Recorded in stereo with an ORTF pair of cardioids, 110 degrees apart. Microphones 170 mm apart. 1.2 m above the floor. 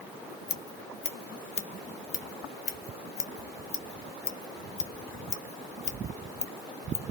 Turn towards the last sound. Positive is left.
turn(degrees=40)